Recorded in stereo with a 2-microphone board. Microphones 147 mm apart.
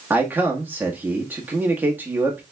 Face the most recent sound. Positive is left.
turn(degrees=-15)  # may be behind; listen again after turning